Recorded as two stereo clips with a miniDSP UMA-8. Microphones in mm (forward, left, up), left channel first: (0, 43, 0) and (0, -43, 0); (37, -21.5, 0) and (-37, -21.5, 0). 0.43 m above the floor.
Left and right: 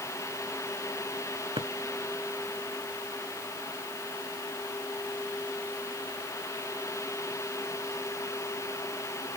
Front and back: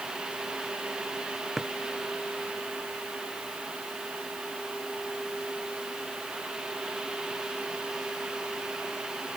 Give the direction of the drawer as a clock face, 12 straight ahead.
3 o'clock.